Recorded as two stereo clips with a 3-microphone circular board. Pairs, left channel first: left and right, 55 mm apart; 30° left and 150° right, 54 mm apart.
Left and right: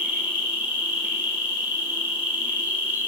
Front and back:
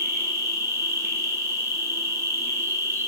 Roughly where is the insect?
Behind right.